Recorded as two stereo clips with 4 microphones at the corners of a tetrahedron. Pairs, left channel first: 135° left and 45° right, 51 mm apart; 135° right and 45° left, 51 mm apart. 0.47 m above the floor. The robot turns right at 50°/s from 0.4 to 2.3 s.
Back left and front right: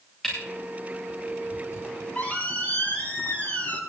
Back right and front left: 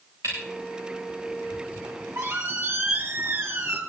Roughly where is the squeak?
Ahead left.